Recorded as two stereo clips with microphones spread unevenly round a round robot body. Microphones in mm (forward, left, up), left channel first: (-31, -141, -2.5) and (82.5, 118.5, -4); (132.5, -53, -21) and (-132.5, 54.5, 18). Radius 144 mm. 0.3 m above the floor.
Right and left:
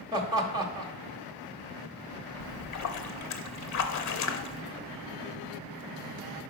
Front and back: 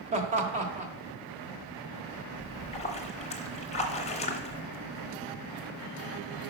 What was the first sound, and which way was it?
Laughter, 115° left.